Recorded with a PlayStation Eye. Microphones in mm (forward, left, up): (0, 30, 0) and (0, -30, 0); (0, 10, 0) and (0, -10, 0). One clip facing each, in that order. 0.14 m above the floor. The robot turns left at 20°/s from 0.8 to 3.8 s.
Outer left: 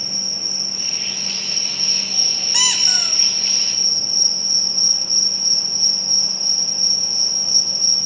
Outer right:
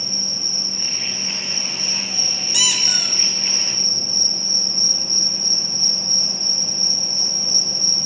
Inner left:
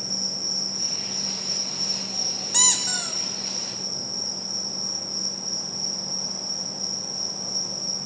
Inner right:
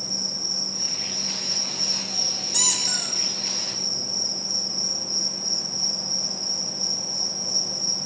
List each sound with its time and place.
0.0 s an insect: 10° left, 3 m; by 8.1 s 50° right, 3 m
2.5 s a squeak: 30° left (ahead or behind), 0.9 m; by 3.1 s 15° left (ahead or behind), 0.9 m